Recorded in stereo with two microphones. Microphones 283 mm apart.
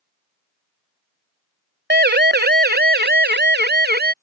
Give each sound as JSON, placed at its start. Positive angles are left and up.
{"t": 1.9, "sound": "a siren", "side_deg": -35}